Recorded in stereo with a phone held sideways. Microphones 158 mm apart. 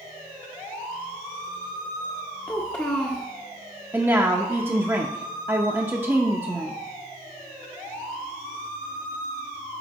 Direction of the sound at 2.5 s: 15° left (ahead or behind).